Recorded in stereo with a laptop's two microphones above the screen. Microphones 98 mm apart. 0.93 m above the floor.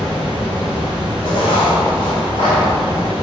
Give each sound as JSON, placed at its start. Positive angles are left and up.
{"t": 0.0, "sound": "a fan", "side_deg": 80, "distance_m": 1.7}
{"t": 1.2, "sound": "writing", "side_deg": 75, "distance_m": 2.0}